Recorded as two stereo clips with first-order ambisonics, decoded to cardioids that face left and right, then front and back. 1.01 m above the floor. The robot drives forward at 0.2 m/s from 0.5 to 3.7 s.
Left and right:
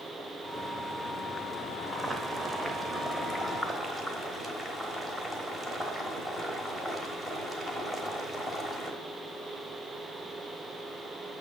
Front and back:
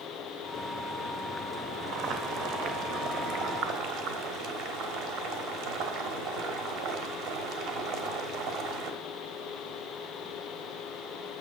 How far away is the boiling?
About 0.9 m.